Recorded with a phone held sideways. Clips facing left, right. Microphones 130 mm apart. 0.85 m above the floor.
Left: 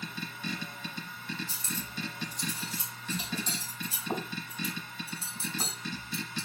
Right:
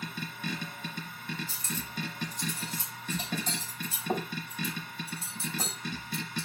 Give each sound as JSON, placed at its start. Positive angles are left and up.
{"t": 0.0, "sound": "a machine running", "side_deg": -50, "distance_m": 2.0}
{"t": 1.5, "sound": "cutlery clinking", "side_deg": -50, "distance_m": 3.5}